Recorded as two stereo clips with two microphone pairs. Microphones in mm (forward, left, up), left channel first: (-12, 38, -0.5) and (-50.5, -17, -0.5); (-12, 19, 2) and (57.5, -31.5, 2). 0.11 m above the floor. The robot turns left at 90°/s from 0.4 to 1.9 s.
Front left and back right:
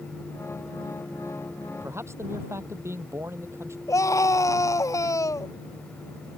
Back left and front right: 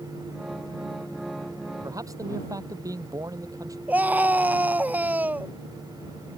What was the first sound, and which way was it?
A man speaking, 75° right.